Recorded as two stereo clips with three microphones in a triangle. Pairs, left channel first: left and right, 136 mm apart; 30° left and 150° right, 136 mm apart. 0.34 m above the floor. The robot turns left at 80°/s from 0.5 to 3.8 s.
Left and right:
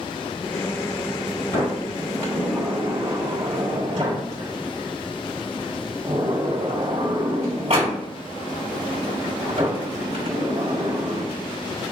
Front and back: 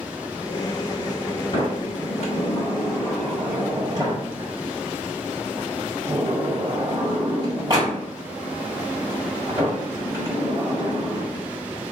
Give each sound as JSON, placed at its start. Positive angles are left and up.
{"t": 1.5, "sound": "a sliding door", "azimuth_deg": 85, "distance_m": 2.0}